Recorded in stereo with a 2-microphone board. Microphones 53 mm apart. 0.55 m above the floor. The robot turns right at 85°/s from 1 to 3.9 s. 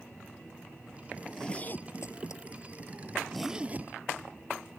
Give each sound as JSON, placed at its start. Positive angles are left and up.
{"t": 1.2, "sound": "a zipper", "side_deg": -5}